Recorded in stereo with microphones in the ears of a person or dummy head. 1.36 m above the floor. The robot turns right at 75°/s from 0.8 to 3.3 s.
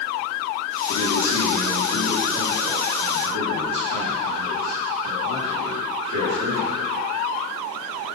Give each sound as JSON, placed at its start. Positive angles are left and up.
{"t": 0.9, "sound": "a man speaking", "azimuth_deg": 70, "distance_m": 1.5}